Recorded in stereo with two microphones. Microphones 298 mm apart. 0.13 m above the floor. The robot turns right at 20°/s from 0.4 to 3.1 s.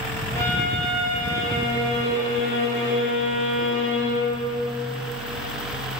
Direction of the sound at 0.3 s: 170° left.